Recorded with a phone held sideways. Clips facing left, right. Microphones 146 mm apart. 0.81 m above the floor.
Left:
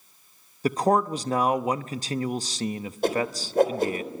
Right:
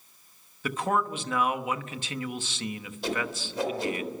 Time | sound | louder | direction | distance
0.6 | a man speaking | left 6 dB | 40° left (ahead or behind) | 0.9 m
3.0 | a whoosh | left 6 dB | 55° left (ahead or behind) | 4 m